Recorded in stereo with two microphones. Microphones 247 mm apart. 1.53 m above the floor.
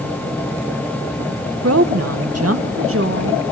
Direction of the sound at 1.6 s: 70° right (ahead or behind).